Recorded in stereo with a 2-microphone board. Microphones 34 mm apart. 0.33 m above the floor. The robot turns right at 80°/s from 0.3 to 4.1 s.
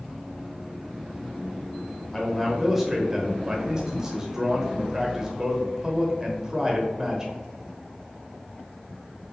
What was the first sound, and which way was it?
A man speaking, 10° left (ahead or behind).